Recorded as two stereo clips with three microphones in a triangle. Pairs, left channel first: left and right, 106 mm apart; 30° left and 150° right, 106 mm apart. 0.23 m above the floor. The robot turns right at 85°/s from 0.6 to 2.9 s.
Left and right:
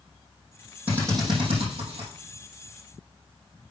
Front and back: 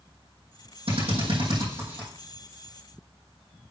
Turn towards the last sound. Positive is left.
turn(degrees=5)